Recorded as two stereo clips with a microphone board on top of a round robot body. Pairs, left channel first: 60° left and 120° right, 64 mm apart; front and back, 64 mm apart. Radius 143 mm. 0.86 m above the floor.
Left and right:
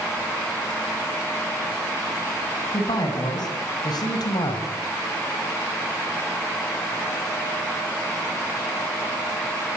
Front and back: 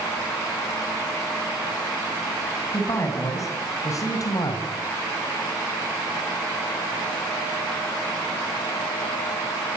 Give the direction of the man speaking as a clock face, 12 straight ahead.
10 o'clock.